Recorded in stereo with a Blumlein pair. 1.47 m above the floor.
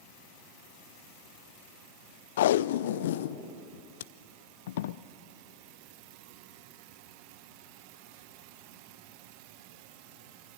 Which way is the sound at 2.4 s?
55° left.